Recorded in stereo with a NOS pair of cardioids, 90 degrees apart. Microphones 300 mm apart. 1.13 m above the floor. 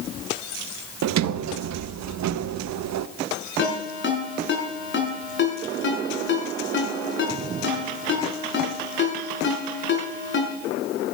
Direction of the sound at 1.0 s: 65° right.